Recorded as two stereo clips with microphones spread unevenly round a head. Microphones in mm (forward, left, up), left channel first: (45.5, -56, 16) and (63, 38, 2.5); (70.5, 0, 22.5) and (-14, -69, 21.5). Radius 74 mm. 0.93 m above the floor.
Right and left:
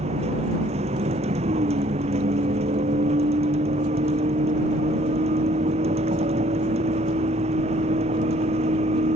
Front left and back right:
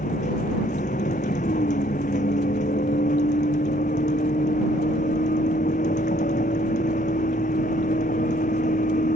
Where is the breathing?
No breathing in this recording.